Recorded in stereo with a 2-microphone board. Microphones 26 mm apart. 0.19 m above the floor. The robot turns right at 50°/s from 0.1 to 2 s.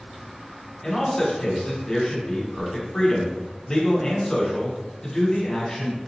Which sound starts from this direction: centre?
A man speaking, at 0.8 s.